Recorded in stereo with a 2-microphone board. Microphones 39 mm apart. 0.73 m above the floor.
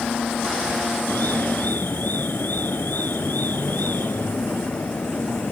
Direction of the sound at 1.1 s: 60° left (ahead or behind).